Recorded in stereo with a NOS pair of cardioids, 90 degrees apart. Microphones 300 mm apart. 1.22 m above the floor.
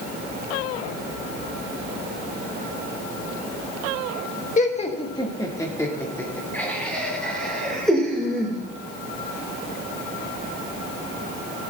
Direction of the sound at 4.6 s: 25° left.